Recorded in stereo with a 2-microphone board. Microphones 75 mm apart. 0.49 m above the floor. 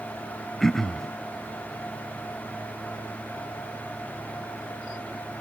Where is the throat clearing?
5° left (ahead or behind).